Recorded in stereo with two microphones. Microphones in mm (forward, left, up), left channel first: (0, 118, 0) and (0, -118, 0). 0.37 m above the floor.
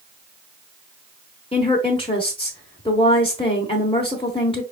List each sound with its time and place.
1.5 s a woman speaking: 25° left (ahead or behind), 1.1 m